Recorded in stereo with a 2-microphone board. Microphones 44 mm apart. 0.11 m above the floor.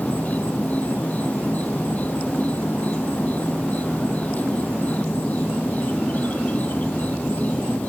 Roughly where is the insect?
Left.